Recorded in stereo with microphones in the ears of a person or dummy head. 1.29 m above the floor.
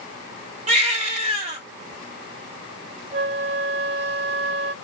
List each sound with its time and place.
0.7 s a baby crying: 40° right (ahead or behind), 1.9 m
3.1 s a flute: 40° right (ahead or behind), 0.9 m